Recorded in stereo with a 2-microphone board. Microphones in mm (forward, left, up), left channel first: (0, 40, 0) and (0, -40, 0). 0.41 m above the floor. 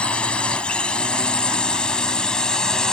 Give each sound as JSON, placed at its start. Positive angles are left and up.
{"t": 0.0, "sound": "a drone", "side_deg": 10}